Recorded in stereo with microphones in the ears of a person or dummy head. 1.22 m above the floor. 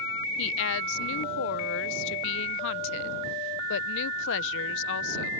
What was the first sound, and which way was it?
A woman speaking, 60° left (ahead or behind).